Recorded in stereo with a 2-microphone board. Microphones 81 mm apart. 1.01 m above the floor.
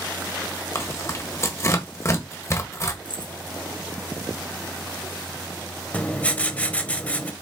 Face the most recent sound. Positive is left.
turn(degrees=15)  # may be behind; listen again after turning